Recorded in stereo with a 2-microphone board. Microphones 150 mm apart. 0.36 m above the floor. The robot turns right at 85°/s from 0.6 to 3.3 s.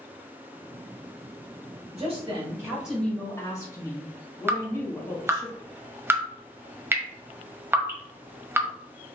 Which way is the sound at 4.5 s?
15° right (ahead or behind).